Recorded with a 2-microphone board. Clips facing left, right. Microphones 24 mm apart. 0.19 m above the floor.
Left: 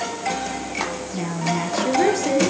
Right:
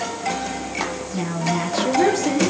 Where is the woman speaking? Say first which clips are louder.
Right 1 dB; centre (ahead or behind), 3.5 m.